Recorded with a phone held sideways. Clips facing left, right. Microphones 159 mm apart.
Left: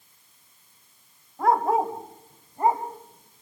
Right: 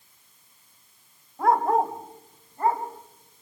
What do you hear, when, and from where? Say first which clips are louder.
1.4 s a dog barking: even; centre (ahead or behind), 1.9 m; by 3.4 s 25° left (ahead or behind), 3 m